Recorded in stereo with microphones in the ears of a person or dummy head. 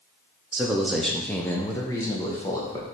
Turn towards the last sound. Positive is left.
turn(degrees=15)  # may be behind; listen again after turning